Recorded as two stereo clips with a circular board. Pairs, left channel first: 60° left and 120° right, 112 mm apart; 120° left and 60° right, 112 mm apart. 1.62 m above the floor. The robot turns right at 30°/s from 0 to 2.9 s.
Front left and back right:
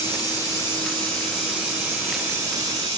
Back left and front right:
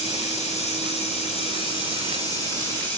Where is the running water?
110° left, 6 m; by 3.0 s 160° right, 6 m.